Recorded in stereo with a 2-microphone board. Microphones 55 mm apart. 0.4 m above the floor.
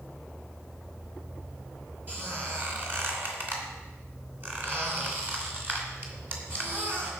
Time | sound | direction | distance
2.1 | a squeak | 40° right (ahead or behind) | 3 m